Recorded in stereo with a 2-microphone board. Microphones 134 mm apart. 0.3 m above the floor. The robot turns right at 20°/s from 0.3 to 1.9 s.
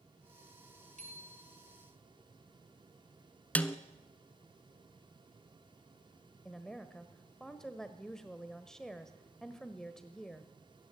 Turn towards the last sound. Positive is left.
turn(degrees=5)  # may be behind; listen again after turning